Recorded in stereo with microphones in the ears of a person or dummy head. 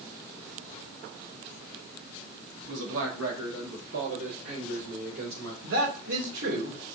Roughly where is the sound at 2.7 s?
Right.